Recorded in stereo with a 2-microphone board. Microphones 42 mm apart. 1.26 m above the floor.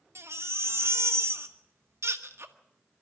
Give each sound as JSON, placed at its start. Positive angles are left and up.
{"t": 0.1, "sound": "a baby crying", "side_deg": -75, "distance_m": 1.6}